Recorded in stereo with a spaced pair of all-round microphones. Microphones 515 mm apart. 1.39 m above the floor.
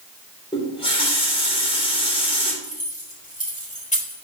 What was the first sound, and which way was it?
A running tap, 10° left (ahead or behind).